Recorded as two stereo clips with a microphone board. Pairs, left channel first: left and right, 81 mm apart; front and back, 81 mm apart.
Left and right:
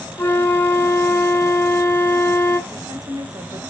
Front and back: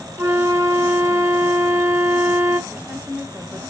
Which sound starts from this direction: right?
A woman speaking, at 2.7 s.